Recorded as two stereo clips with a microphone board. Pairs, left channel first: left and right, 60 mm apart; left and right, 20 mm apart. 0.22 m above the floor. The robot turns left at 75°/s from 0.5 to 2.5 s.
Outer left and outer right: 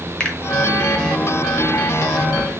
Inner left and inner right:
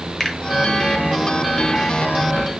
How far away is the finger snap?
About 1.5 m.